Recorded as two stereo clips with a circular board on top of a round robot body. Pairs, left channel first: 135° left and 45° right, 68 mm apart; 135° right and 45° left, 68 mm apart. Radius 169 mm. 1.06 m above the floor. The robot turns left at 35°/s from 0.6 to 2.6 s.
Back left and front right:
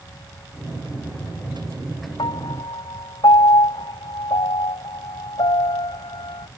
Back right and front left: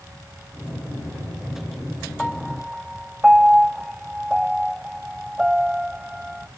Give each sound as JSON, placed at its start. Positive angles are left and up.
{"t": 2.2, "sound": "a piano", "azimuth_deg": 140}